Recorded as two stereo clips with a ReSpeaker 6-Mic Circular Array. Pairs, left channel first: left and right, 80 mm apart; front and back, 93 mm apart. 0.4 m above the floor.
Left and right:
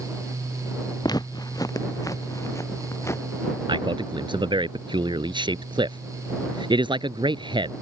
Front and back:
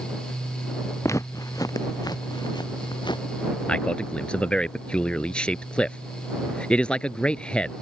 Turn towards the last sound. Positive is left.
turn(degrees=-80)